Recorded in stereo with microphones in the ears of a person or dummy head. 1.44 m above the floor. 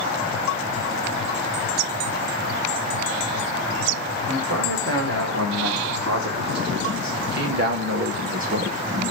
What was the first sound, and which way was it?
A man speaking, 70° right (ahead or behind).